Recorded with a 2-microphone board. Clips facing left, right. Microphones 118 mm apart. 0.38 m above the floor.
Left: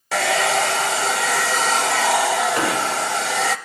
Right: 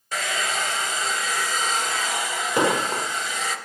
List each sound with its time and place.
0.1 s a hair dryer: 85° left, 0.5 m
2.6 s an explosion: 20° right (ahead or behind), 0.9 m